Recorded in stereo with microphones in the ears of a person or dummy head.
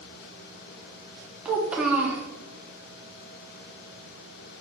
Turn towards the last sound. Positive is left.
turn(degrees=-10)  # may be behind; listen again after turning